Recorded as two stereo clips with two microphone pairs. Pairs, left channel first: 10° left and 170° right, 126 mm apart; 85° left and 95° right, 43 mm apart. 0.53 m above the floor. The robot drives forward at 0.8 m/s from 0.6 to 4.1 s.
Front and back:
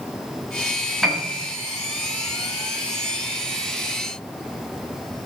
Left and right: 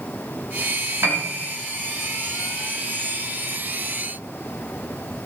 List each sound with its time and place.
1.0 s a piano: 75° right, 3 m; by 1.5 s 85° right, 3 m